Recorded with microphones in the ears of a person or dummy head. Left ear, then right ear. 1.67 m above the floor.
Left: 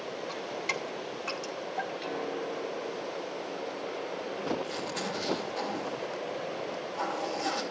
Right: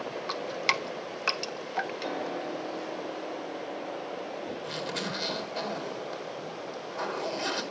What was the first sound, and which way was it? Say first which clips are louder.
Dripping: right 6 dB; 55° right (ahead or behind).